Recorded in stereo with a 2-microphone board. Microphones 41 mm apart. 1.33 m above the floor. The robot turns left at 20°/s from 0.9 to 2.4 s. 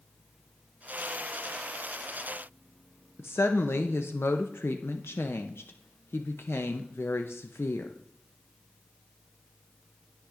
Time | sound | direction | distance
3.2 | a woman speaking | 85° left | 0.6 m